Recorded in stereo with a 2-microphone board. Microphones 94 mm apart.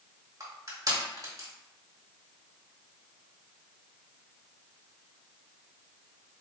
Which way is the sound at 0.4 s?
40° right (ahead or behind).